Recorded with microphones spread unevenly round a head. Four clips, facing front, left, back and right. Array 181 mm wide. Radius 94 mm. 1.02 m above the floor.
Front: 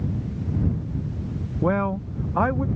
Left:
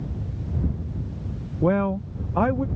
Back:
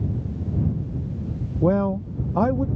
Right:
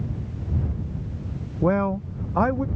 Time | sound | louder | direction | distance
1.6 | a man speaking | even, back 2 dB | 165° left | ?